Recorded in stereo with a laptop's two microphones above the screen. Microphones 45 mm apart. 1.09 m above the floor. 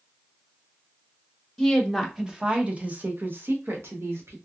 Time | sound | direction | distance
1.6 | a woman speaking | 5° left (ahead or behind) | 1.0 m